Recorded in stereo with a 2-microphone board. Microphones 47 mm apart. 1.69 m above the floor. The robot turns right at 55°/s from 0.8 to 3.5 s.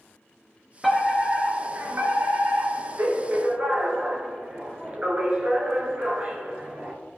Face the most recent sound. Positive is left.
turn(degrees=-35)